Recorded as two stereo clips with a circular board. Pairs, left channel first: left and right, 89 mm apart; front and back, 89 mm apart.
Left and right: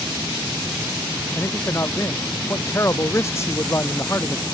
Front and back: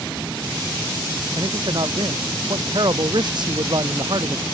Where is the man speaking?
145° left.